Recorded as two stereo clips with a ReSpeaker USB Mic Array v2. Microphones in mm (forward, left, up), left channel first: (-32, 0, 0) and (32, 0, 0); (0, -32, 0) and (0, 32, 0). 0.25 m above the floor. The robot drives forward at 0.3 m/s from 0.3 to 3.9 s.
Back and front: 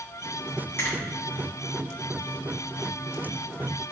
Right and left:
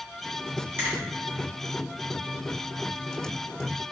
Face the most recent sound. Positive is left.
turn(degrees=150)